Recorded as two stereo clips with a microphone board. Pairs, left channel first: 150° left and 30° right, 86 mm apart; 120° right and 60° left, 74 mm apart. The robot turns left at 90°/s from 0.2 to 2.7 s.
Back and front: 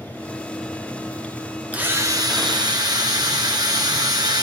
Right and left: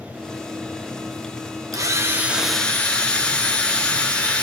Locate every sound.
1.7 s a drill: 40° left, 1.5 m; by 4.4 s 45° right, 1.5 m